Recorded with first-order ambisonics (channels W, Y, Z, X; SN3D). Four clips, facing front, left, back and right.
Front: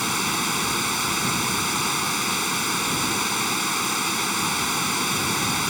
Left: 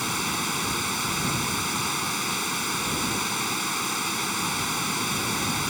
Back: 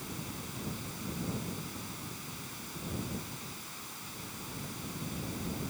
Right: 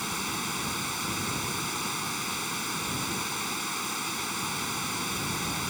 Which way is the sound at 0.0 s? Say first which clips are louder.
Left 5 dB, front 19 dB; 15° left.